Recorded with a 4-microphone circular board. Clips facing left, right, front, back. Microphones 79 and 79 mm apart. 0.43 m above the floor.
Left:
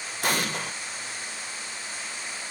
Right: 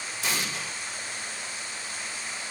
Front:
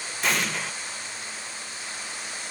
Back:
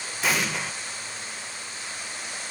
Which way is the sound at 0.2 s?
95° left.